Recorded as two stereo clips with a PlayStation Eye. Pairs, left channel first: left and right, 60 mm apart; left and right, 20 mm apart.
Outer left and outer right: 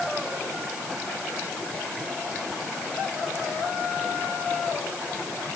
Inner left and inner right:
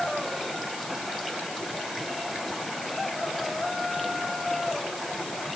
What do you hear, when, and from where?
Only background noise.